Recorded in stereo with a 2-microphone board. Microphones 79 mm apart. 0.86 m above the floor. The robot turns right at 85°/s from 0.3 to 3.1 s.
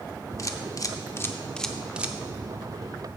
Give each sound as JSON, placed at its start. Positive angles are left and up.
{"t": 0.4, "sound": "a camera shutter", "side_deg": 40, "distance_m": 0.5}